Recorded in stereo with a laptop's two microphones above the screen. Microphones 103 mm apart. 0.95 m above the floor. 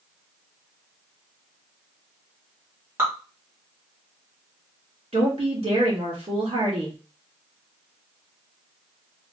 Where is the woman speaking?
75° right (ahead or behind), 2.5 m.